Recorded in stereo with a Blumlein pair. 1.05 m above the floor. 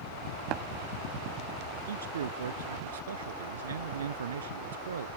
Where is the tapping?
35° right.